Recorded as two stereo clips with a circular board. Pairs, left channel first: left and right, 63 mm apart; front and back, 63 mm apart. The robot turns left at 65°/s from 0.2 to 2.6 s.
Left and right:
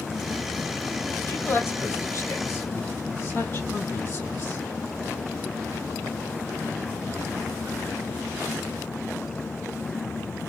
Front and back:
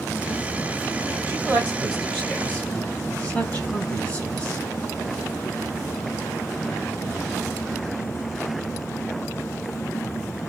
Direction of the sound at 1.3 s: 135° left.